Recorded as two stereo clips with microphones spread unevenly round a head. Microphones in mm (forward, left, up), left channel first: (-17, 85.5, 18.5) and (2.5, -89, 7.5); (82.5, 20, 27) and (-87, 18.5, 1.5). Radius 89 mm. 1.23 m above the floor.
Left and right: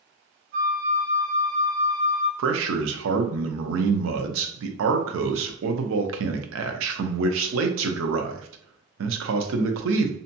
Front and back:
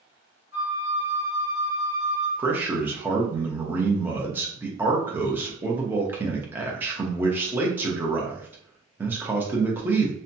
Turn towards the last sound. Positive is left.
turn(degrees=-100)